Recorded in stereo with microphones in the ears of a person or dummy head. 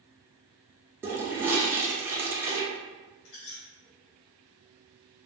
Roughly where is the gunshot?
I don't hear a gunshot.